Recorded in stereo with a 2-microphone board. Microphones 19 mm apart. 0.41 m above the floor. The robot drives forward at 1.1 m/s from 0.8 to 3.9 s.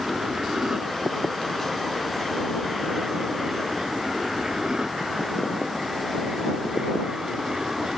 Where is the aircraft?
35° right (ahead or behind).